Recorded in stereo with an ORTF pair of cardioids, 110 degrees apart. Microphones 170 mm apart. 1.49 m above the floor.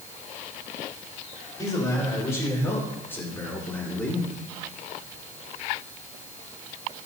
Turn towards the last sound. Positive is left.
turn(degrees=5)